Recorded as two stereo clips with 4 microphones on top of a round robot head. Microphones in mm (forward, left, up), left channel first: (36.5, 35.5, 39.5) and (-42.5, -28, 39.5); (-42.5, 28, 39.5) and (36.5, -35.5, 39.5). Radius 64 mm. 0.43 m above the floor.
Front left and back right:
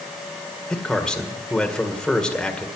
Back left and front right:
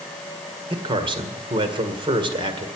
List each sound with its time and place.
0.7 s a man speaking: 45° right, 1.8 m